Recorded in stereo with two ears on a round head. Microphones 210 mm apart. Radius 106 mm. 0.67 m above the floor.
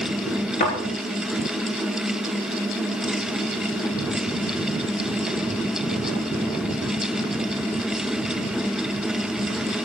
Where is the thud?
35° left (ahead or behind), 5 m.